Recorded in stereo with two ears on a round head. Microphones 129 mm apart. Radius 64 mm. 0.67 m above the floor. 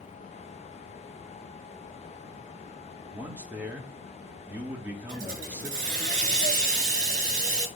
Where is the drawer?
No drawer in this recording.